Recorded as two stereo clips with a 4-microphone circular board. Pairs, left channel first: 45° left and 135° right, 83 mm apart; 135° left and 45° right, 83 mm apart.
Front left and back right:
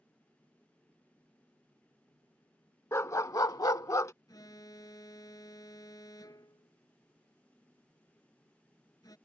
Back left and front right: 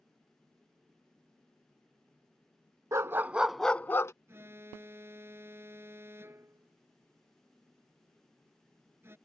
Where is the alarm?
10° left.